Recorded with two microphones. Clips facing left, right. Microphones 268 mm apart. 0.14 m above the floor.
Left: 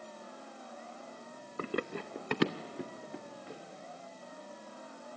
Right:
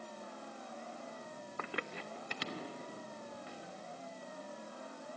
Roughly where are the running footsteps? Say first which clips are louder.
Left 9 dB; left.